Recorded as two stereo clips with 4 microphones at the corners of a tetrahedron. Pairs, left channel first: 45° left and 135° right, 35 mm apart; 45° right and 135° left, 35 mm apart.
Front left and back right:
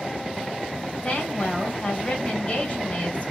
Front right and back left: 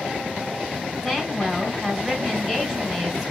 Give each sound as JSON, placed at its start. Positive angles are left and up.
{"t": 1.0, "sound": "a woman speaking", "azimuth_deg": 70, "distance_m": 2.0}